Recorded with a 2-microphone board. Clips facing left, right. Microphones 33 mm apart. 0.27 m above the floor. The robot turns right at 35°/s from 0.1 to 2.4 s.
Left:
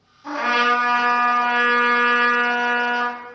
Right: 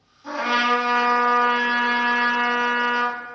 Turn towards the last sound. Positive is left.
turn(degrees=95)